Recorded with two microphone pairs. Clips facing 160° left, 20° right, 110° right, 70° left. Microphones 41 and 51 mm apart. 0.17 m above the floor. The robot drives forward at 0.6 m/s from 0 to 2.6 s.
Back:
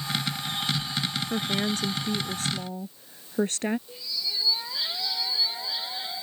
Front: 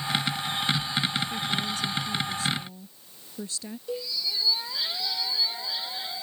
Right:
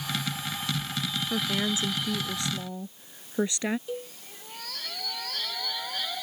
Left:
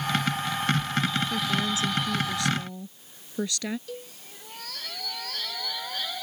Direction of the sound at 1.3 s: 170° right.